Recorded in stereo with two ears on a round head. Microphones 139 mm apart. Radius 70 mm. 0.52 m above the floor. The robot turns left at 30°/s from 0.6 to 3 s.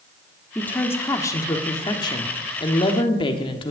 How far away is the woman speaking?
About 1.2 m.